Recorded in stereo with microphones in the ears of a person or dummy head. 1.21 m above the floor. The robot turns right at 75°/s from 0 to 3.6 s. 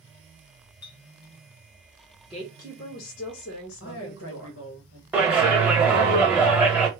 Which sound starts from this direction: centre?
A clap, at 5.1 s.